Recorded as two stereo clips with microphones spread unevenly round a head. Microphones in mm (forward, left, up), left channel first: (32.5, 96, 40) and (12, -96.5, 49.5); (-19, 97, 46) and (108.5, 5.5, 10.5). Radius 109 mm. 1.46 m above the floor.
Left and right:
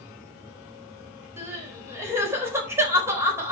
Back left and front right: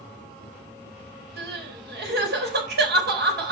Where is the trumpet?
I don't hear a trumpet.